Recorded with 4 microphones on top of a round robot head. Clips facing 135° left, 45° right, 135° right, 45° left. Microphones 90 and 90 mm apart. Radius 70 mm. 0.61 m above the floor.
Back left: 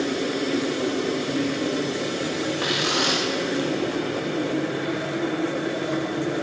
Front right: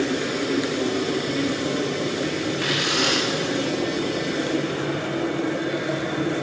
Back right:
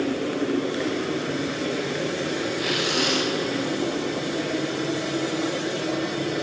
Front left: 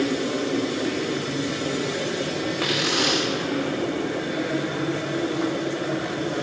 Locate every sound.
2.6 s tearing paper: 70° left, 9 m